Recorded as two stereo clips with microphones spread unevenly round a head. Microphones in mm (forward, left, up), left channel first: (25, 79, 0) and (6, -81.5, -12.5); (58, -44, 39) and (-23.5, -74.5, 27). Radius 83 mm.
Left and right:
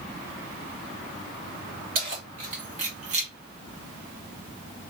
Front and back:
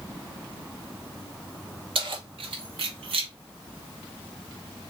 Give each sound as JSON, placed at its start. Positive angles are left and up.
{"t": 1.9, "sound": "keys jangling", "azimuth_deg": -140, "distance_m": 2.0}